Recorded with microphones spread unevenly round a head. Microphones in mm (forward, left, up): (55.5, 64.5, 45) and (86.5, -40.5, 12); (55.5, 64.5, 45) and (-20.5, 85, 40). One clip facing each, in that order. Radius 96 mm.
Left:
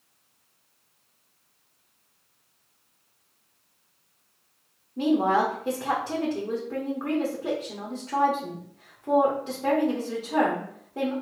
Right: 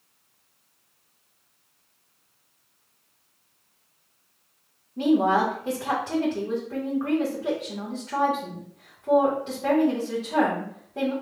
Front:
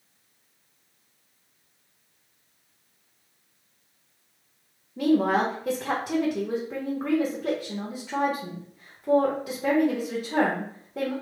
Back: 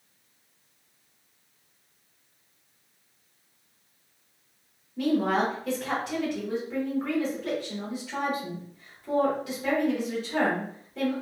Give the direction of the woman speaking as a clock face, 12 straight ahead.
11 o'clock.